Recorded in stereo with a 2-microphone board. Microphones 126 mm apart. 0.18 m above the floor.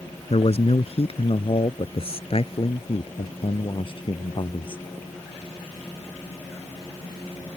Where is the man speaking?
55° left (ahead or behind); by 4.8 s 45° left (ahead or behind).